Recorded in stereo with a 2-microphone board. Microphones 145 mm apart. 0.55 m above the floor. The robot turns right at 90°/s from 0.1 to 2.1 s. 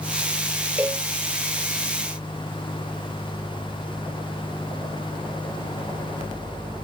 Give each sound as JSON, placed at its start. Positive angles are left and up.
{"t": 0.8, "sound": "a cowbell", "side_deg": -10}